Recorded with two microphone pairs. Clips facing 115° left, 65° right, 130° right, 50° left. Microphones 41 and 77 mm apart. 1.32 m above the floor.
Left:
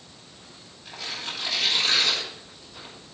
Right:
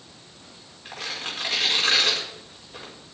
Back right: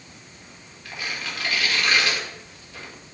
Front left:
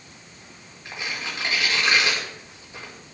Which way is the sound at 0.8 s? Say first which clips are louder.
Right 2 dB, even; 15° right.